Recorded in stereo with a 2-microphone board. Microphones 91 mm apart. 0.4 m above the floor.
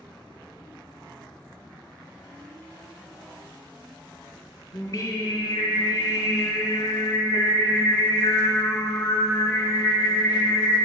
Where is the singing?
40° left (ahead or behind), 1.2 m.